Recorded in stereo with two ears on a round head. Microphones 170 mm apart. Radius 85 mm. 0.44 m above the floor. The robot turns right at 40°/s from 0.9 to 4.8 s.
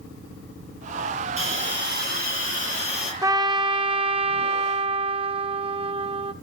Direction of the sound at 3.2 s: 15° right (ahead or behind).